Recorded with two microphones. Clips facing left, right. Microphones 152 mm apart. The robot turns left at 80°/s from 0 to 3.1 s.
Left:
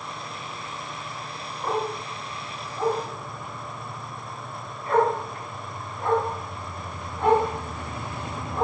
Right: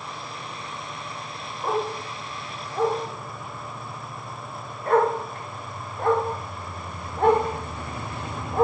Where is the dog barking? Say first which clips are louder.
Right 1 dB; 10° right (ahead or behind), 6.5 m; by 8.7 s 50° right (ahead or behind), 6.5 m.